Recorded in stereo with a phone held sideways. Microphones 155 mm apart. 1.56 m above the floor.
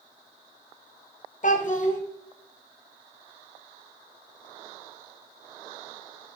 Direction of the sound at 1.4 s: 55° left (ahead or behind).